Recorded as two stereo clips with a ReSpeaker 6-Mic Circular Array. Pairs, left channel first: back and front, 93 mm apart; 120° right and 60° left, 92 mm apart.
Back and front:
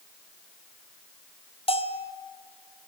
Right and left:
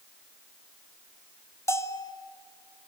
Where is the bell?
Straight behind, 0.9 m.